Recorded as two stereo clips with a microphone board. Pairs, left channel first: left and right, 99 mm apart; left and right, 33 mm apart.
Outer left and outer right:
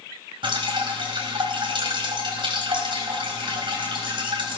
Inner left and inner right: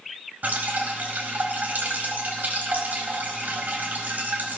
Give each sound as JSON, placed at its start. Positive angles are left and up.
{"t": 0.4, "sound": "dripping", "side_deg": -55, "distance_m": 4.5}